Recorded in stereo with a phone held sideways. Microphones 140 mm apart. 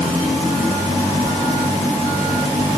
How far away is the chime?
I don't hear a chime.